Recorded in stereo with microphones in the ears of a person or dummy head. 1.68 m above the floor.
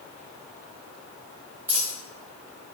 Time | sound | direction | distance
1.7 | a dropped coin | 15° right (ahead or behind) | 2 m